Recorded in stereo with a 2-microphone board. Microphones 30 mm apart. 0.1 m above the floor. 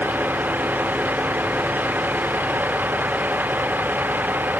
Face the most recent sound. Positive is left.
turn(degrees=-85)